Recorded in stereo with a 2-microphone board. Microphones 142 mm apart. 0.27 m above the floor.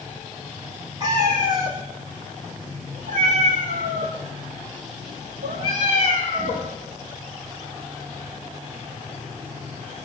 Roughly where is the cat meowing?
Right.